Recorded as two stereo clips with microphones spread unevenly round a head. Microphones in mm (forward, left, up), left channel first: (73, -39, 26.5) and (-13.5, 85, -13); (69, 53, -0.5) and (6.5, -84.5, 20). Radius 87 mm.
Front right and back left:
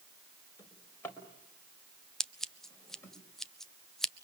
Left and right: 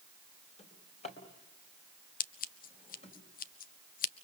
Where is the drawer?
15° left, 4.5 m.